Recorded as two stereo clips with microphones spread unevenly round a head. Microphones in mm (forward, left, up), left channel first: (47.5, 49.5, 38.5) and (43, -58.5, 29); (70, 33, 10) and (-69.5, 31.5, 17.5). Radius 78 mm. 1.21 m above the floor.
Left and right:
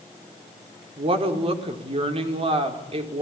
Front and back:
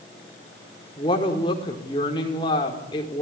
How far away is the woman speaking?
About 4 m.